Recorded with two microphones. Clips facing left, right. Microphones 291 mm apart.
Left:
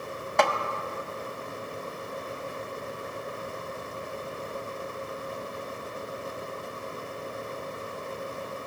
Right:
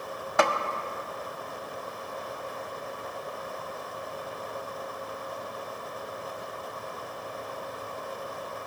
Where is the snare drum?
5° right (ahead or behind), 0.5 m.